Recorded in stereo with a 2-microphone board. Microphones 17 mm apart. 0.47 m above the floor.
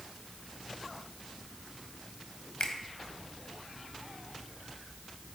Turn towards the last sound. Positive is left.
turn(degrees=40)  # may be behind; listen again after turning